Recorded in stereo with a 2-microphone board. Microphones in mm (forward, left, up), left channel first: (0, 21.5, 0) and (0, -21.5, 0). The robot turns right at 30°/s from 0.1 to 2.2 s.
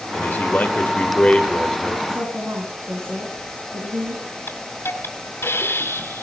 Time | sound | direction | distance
0.1 | a man speaking | 110° left | 1.7 m
2.1 | a woman speaking | 65° right (ahead or behind) | 4 m
4.5 | a hiss | 70° left (ahead or behind) | 2 m